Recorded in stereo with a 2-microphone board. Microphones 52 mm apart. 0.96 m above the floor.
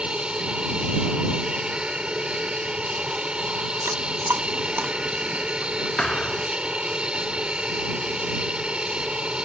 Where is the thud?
20° left (ahead or behind).